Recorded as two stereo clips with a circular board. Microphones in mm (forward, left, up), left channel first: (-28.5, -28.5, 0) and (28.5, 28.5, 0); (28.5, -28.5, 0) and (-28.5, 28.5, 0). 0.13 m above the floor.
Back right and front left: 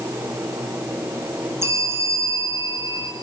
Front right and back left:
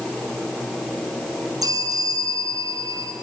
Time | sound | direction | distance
1.6 | a bell | 100° left | 3.5 m